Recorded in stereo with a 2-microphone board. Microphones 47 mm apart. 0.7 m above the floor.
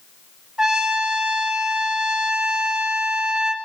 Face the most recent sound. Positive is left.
turn(degrees=-15)  # may be behind; listen again after turning